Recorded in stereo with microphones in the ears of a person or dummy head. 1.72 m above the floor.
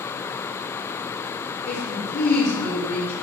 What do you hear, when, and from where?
1.7 s a woman speaking: 55° left (ahead or behind), 5.5 m